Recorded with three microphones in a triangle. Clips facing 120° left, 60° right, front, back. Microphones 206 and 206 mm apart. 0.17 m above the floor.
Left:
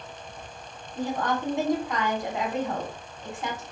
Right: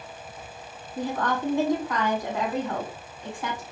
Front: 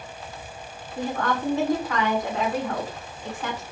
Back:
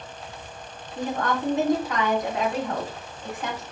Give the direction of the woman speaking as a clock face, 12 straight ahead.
7 o'clock.